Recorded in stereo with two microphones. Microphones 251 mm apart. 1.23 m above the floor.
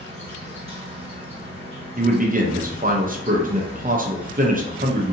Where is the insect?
25° right (ahead or behind), 1.1 m.